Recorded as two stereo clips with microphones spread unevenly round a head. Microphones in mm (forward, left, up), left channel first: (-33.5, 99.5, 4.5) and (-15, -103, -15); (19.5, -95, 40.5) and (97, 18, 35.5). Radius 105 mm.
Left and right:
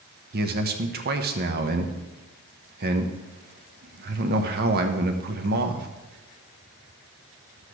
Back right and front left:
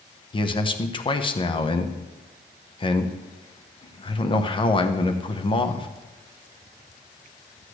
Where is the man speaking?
80° right, 1.0 m.